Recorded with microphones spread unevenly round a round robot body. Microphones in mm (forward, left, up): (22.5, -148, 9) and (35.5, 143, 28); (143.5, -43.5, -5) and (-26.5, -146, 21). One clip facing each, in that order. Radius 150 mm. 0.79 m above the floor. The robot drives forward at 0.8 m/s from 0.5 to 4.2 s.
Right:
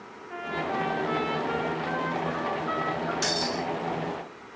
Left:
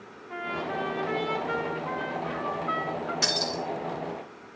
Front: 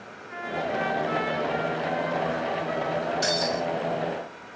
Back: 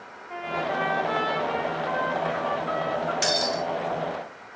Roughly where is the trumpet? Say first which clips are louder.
Right 2 dB, even; behind.